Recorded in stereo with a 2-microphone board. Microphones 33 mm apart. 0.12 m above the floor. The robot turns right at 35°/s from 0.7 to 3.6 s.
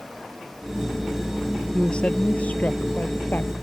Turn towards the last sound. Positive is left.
turn(degrees=90)